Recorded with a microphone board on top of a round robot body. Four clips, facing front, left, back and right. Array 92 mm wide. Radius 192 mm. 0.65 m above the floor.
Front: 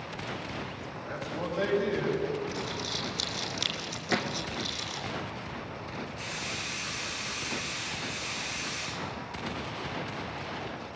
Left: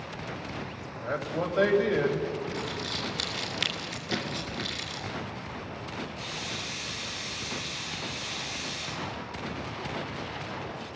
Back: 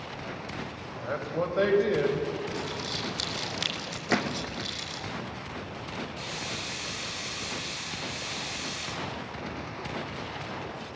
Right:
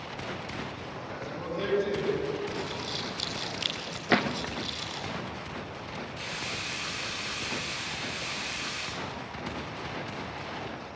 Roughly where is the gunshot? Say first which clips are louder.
Right 8 dB, back 3 dB; behind right.